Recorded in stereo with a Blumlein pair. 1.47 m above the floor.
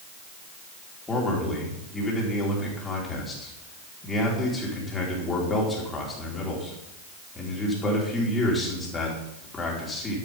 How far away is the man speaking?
About 5 m.